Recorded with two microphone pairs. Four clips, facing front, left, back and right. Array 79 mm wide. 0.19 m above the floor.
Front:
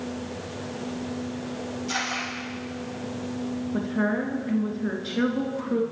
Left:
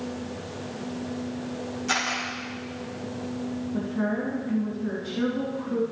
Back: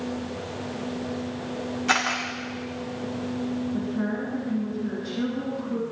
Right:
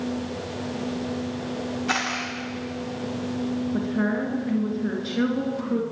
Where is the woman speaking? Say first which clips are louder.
Right 1 dB, front 2 dB; 30° right, 3.5 m.